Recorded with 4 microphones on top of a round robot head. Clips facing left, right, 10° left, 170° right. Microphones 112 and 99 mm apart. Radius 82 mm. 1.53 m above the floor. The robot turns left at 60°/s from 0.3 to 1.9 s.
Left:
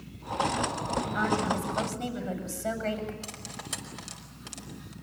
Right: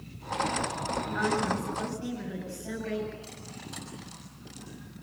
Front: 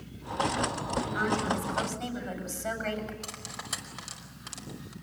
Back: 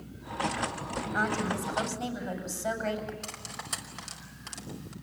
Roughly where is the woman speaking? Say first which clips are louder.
Even, back 1 dB; behind.